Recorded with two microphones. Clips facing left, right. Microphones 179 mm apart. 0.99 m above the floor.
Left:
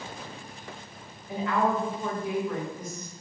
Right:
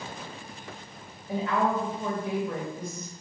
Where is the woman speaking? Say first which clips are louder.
Even; 30° right (ahead or behind), 1.1 m.